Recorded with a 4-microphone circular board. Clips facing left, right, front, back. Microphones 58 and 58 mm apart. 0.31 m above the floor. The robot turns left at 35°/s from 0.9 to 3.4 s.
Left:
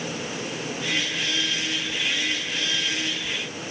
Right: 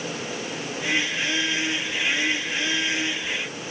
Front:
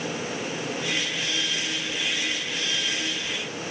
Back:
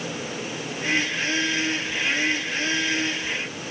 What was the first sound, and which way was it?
Only background noise.